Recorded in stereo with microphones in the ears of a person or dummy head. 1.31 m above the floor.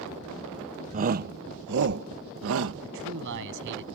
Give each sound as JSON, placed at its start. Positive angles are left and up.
{"t": 0.9, "sound": "a shout", "side_deg": -35}
{"t": 2.8, "sound": "a man speaking", "side_deg": -65}